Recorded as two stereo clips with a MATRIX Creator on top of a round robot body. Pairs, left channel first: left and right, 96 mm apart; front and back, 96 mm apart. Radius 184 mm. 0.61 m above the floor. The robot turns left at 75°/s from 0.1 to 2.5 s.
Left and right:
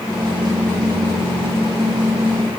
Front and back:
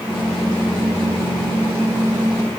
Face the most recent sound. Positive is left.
No sound to turn to.